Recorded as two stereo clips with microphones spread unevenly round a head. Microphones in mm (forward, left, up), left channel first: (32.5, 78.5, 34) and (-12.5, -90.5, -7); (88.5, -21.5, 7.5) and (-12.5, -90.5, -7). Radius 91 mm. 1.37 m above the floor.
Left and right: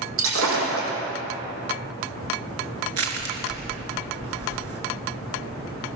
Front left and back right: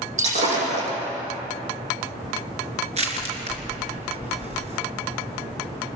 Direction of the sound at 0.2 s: 120° right.